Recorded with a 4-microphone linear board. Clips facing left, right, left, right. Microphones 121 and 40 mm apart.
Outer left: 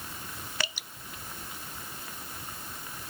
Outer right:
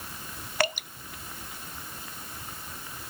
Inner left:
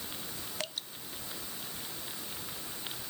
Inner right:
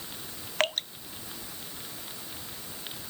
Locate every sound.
0.6 s dripping: 55° right (ahead or behind)